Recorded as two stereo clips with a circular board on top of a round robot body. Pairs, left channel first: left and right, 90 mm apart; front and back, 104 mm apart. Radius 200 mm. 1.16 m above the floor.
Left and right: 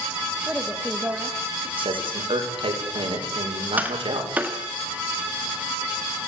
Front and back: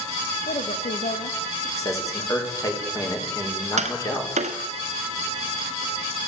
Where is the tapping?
165° right, 1.3 m.